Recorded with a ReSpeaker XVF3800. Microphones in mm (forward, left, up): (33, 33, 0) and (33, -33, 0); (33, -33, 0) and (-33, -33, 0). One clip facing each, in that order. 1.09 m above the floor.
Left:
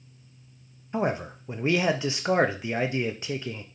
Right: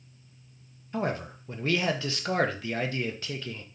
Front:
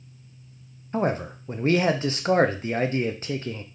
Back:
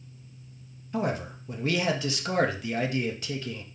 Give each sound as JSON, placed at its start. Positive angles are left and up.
{"t": 0.9, "sound": "a man speaking", "azimuth_deg": 30, "distance_m": 0.6}